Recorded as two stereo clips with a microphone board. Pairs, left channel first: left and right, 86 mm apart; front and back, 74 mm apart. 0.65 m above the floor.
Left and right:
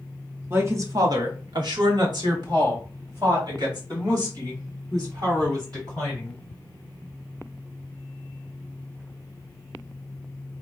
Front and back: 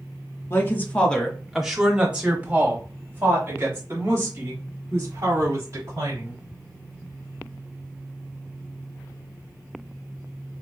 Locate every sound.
0.5 s a woman speaking: 40° right, 1.1 m; by 6.4 s 130° right, 5 m